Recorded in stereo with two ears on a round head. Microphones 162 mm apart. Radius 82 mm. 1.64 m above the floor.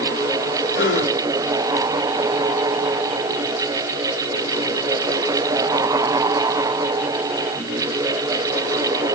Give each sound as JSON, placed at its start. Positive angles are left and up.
{"t": 0.7, "sound": "a gasp", "side_deg": 70, "distance_m": 3.5}